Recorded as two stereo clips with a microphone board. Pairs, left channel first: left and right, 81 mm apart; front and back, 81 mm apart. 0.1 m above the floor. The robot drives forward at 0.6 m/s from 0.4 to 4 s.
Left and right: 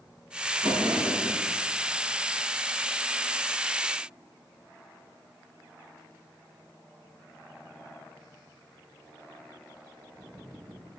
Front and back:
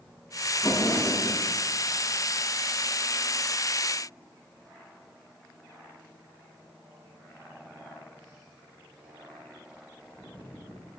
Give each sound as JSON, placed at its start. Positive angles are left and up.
{"t": 0.6, "sound": "a drawer", "azimuth_deg": -65, "distance_m": 5.0}